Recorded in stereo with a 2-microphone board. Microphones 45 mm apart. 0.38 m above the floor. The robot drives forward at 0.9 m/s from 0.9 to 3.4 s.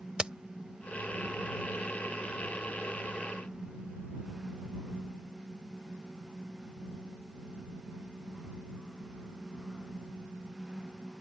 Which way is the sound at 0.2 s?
25° right (ahead or behind).